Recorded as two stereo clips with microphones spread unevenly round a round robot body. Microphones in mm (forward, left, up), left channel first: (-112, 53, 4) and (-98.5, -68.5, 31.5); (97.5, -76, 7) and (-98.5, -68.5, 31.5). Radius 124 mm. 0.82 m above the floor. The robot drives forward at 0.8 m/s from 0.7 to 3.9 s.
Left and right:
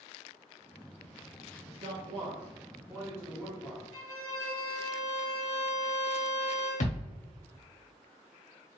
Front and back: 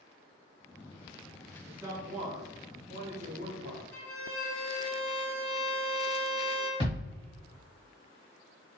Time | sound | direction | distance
1.6 | a man speaking | 90° right | 0.7 m
3.9 | a violin | 80° right | 1.7 m
6.8 | a thud | 105° left | 1.3 m